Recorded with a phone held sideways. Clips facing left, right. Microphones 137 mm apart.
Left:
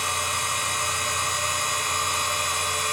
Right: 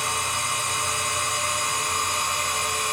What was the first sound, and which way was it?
A machine running, 60° right (ahead or behind).